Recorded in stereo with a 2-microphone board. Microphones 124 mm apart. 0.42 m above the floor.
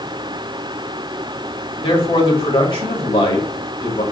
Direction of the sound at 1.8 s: 50° left (ahead or behind).